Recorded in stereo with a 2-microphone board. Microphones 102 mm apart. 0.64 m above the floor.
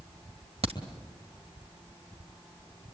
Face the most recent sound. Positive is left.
turn(degrees=-70)  # may be behind; listen again after turning